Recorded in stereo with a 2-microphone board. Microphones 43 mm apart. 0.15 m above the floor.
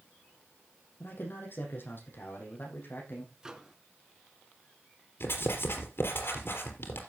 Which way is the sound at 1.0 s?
60° left (ahead or behind).